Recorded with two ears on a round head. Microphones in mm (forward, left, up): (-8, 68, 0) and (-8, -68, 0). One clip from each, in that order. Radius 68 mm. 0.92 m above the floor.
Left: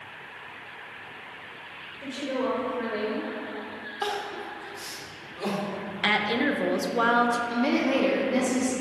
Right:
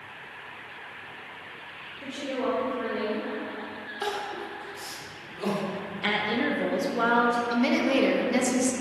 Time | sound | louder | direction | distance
2.0 | a woman speaking | left 1 dB | 5° left (ahead or behind) | 1.4 m
4.0 | crying | left 1 dB | 5° right (ahead or behind) | 1.2 m
6.0 | a woman speaking | left 2 dB | 25° left (ahead or behind) | 0.6 m
7.5 | a woman speaking | right 1 dB | 40° right (ahead or behind) | 0.8 m